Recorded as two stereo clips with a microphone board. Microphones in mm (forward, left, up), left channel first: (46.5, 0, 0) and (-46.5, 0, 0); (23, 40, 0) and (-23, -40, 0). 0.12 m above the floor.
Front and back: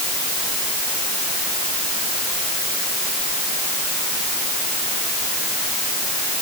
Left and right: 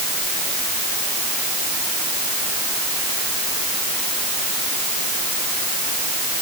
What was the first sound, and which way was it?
Only background noise.